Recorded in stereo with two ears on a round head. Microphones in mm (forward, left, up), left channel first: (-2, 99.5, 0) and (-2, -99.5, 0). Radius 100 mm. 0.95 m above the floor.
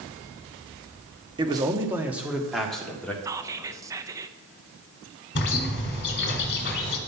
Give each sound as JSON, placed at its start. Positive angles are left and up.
{"t": 1.4, "sound": "a man speaking", "side_deg": -20, "distance_m": 1.2}
{"t": 3.2, "sound": "whispering", "side_deg": -15, "distance_m": 0.6}
{"t": 5.3, "sound": "a bird", "side_deg": 50, "distance_m": 1.8}